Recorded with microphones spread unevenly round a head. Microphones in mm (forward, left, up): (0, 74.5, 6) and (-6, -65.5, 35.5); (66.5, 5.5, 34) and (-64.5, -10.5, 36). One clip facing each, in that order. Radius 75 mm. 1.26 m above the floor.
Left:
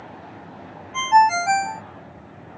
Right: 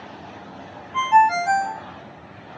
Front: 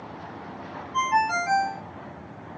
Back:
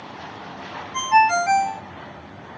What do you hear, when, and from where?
0.9 s a ringtone: 165° left, 0.8 m